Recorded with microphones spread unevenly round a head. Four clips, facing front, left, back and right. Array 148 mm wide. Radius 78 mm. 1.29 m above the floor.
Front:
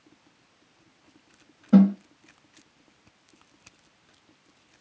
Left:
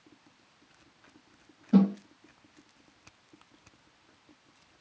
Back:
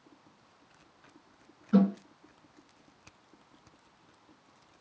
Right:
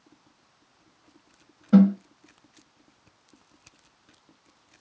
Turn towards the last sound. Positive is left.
turn(degrees=-45)